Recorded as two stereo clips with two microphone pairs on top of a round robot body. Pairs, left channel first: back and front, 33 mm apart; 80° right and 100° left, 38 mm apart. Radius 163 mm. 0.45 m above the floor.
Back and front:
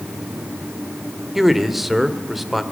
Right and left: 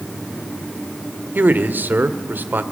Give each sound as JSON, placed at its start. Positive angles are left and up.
{"t": 1.4, "sound": "a man speaking", "azimuth_deg": 75, "distance_m": 2.0}